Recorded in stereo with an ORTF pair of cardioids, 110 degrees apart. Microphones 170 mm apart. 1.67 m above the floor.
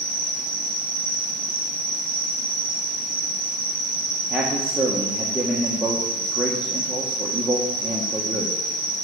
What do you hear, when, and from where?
0.0 s an insect: 25° right, 2 m
4.3 s a man speaking: 5° right, 1.6 m